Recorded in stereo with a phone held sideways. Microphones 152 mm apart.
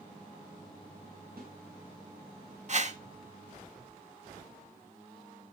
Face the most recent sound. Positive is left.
turn(degrees=-50)  # may be behind; listen again after turning